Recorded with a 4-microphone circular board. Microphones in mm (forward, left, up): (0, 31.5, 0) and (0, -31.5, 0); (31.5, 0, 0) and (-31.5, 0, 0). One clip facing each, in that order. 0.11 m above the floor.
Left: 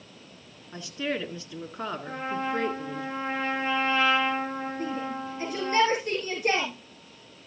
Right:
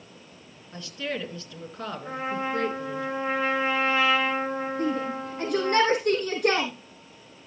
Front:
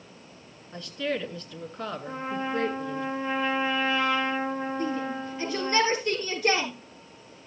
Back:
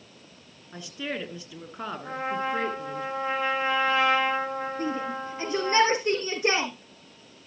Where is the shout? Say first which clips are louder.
Right 4 dB, even; 120° right, 5 m.